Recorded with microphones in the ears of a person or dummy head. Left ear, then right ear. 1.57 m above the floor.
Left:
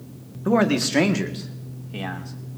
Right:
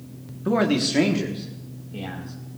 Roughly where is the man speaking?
Left.